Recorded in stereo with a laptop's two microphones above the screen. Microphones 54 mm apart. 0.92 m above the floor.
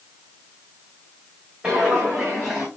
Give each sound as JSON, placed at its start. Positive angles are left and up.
{"t": 1.6, "sound": "footsteps", "side_deg": -15, "distance_m": 3.0}